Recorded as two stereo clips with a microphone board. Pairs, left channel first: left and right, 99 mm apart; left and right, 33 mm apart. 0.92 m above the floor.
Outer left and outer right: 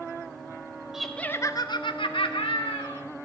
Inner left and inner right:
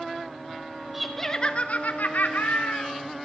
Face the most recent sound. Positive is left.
turn(degrees=70)  # may be behind; listen again after turning